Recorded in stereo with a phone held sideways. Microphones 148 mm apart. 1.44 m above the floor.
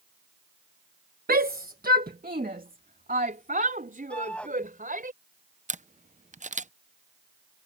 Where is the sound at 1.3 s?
80° right; by 5.1 s 70° right (ahead or behind).